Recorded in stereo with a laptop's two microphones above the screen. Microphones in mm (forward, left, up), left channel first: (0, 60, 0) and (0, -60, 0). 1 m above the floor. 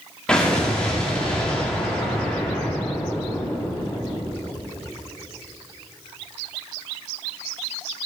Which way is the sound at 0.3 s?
10° left (ahead or behind).